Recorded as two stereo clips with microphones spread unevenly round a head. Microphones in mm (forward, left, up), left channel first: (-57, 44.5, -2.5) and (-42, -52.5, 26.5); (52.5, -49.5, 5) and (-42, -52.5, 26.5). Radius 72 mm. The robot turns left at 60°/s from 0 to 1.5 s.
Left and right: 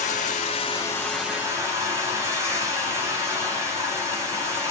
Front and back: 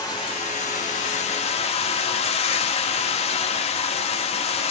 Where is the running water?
75° left, 0.7 m; by 4.7 s 15° right, 0.7 m.